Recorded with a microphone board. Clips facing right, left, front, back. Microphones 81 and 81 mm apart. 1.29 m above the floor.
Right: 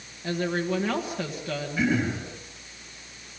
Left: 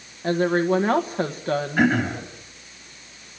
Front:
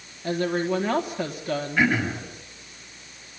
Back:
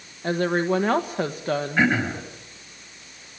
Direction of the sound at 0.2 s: 135° left.